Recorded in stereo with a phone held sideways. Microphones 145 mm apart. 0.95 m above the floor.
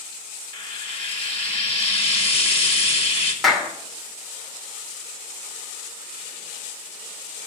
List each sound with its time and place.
0.5 s frying: 45° left (ahead or behind), 2 m
3.4 s a clap: centre (ahead or behind), 2.5 m